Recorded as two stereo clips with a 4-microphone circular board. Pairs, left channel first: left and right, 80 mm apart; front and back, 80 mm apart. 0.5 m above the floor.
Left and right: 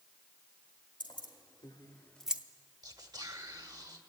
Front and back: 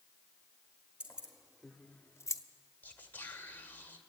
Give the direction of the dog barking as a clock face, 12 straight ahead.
No dog barking in this recording.